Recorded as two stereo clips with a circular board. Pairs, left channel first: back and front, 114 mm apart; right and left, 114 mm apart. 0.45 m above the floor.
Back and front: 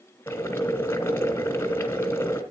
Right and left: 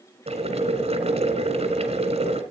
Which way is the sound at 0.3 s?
110° left.